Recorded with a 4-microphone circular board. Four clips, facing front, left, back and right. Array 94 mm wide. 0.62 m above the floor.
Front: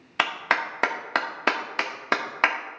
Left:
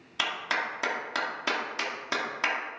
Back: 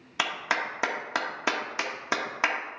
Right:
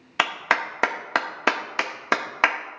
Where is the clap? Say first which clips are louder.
Right 7 dB, front 4 dB; 60° right, 0.9 m.